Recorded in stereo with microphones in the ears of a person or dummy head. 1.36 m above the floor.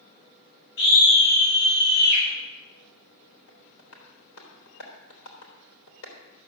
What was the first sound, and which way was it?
A scream, 70° left (ahead or behind).